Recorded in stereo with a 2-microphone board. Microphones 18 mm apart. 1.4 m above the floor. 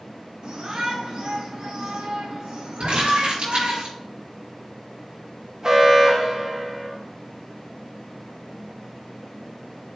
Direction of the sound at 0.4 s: 55° right (ahead or behind).